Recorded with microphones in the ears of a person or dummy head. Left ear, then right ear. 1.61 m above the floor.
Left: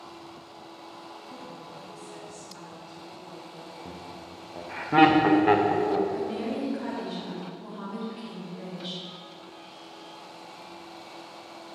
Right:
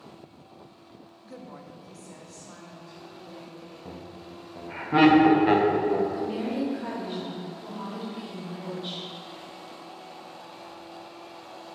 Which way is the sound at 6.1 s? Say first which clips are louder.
Right 1 dB; centre (ahead or behind).